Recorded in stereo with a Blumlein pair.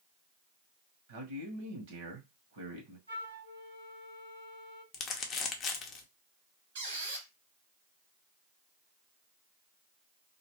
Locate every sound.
1.1 s a man speaking: 55° right, 1.0 m
3.1 s a flute: 70° right, 1.2 m
4.9 s crumpling: 25° left, 0.7 m
6.8 s a squeak: 60° right, 1.1 m